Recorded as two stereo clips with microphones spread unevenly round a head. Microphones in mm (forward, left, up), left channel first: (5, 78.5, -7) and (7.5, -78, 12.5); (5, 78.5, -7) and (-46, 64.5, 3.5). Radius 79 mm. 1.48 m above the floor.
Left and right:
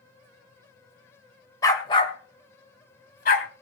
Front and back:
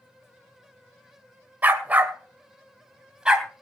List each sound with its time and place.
1.6 s a dog barking: 165° left, 1.8 m; by 3.5 s 125° left, 3 m